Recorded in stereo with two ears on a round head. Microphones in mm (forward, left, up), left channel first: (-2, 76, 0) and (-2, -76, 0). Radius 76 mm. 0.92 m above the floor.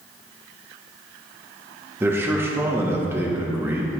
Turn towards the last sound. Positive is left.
turn(degrees=-15)  # may be behind; listen again after turning